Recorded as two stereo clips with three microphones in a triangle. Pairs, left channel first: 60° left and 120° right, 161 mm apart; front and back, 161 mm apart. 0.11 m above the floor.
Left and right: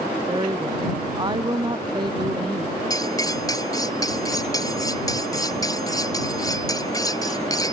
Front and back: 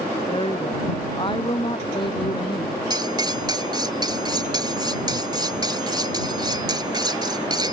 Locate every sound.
0.3 s a woman speaking: 55° right
2.9 s cutlery clinking: 120° left